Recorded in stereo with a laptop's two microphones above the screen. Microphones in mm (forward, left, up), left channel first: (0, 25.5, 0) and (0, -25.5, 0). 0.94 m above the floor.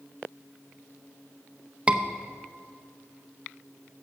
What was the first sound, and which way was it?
A scream, 20° right (ahead or behind).